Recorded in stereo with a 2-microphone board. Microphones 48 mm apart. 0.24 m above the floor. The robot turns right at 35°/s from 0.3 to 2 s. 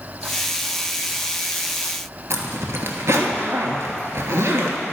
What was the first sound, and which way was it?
A zipper, 70° right (ahead or behind).